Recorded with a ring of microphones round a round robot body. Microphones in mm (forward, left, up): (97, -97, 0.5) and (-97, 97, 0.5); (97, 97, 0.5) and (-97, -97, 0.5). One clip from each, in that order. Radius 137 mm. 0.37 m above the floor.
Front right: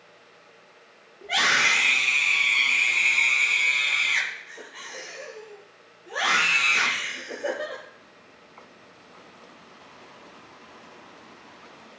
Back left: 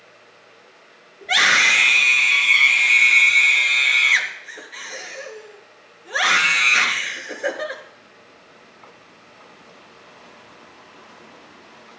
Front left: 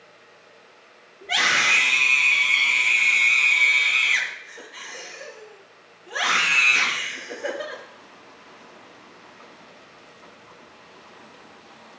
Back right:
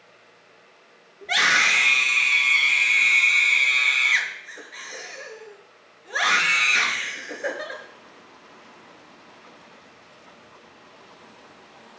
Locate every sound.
1.2 s a scream: 160° left, 5.5 m